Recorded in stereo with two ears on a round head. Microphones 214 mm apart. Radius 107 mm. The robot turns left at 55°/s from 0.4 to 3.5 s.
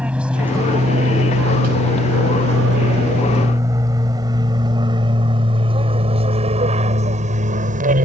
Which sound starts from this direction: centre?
An aircraft, at 0.0 s.